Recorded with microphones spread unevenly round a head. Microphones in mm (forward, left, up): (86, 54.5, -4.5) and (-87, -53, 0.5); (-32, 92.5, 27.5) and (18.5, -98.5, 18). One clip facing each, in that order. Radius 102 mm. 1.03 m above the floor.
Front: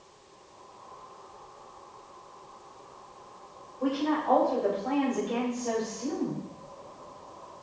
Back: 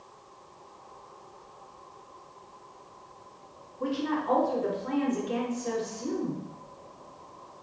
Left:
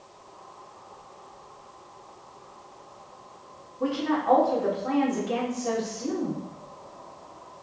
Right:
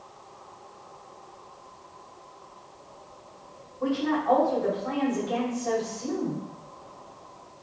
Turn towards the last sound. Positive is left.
turn(degrees=155)